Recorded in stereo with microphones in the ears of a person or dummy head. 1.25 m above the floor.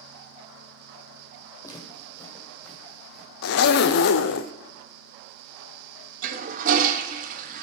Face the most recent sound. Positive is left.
turn(degrees=-35)  # may be behind; listen again after turning